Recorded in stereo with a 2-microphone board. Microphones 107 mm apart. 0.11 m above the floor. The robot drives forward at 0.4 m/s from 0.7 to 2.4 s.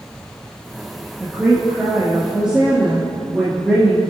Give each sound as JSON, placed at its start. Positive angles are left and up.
{"t": 1.2, "sound": "a woman speaking", "side_deg": -10, "distance_m": 3.0}